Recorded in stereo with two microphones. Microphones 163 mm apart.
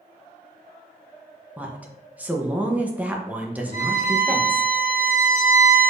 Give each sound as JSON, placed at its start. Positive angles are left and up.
{"t": 1.6, "sound": "a woman speaking", "side_deg": -10, "distance_m": 0.7}
{"t": 3.7, "sound": "a violin", "side_deg": -60, "distance_m": 2.0}